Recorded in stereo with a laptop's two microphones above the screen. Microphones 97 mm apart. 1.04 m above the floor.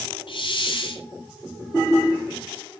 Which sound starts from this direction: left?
A hiss, at 0.3 s.